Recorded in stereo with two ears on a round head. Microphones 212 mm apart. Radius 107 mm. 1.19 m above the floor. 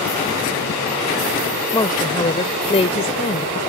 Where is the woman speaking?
15° left (ahead or behind); by 3.6 s 30° left (ahead or behind).